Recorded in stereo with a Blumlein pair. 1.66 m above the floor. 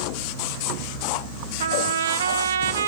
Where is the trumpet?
65° right, 1.2 m.